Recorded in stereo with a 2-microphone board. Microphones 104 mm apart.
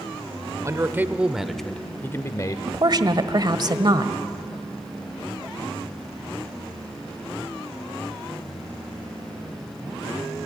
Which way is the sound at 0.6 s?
30° right (ahead or behind).